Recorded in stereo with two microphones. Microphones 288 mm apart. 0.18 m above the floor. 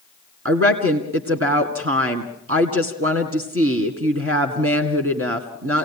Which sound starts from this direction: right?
A woman speaking, at 0.5 s.